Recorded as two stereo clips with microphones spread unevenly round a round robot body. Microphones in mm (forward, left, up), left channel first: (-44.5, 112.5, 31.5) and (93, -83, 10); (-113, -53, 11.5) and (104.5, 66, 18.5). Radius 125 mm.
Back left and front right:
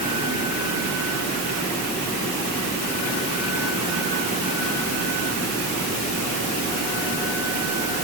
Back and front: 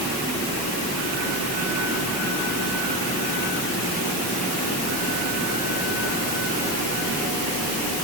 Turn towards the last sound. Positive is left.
No sound to turn to.